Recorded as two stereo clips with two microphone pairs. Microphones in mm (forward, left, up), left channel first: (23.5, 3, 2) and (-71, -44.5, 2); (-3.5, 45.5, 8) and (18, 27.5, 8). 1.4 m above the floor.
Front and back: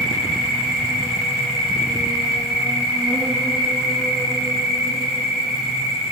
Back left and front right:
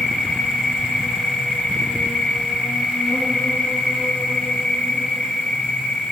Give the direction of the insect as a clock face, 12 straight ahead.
8 o'clock.